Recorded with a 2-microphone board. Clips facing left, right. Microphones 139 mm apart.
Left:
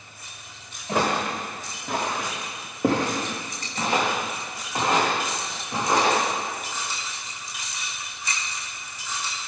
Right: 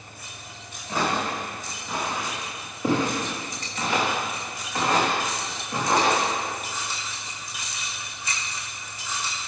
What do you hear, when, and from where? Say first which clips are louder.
0.9 s footsteps: left 2 dB; 70° left (ahead or behind), 4.5 m; by 6.2 s 10° left (ahead or behind), 7 m